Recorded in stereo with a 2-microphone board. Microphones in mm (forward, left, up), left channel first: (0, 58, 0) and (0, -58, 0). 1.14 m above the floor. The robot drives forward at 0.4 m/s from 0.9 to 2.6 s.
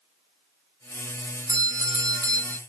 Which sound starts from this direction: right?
A doorbell, at 1.5 s.